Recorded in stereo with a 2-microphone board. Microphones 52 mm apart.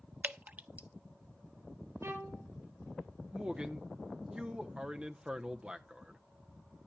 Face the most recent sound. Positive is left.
turn(degrees=-15)  # may be behind; listen again after turning